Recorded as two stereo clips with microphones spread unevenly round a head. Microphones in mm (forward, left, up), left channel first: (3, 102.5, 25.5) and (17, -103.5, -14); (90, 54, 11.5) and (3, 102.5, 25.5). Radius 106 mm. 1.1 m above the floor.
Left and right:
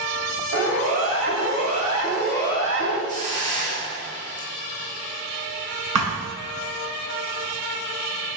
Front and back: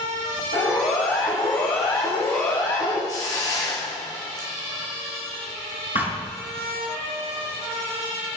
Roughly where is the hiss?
Ahead right.